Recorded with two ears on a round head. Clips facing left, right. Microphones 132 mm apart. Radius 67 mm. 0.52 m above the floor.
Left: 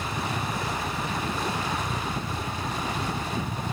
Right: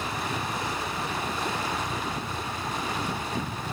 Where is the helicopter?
15° left (ahead or behind); by 3.7 s 20° left (ahead or behind).